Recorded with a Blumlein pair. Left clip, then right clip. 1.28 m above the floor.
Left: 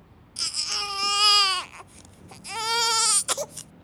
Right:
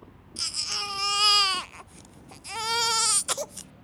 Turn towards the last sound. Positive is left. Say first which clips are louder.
# left 2 dB
turn(degrees=10)